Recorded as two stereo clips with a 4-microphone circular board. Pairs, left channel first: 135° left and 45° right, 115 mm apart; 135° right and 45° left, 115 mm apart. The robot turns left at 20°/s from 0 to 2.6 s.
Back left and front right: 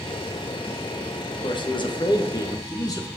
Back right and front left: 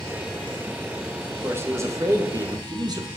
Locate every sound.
1.4 s a man speaking: 110° left, 1.0 m; by 3.1 s 90° left, 1.0 m